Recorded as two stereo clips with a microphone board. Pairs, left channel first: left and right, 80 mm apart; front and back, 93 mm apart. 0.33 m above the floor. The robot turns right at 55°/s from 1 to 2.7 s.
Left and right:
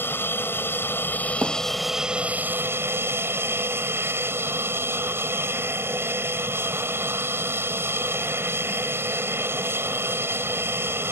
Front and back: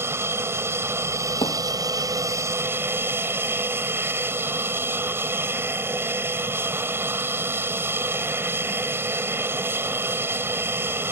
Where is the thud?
25° right; by 1.6 s 15° right.